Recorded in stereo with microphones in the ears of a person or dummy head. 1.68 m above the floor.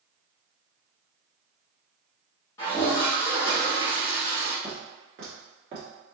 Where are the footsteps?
5° right (ahead or behind), 1.7 m; by 5.9 s 25° right (ahead or behind), 1.8 m.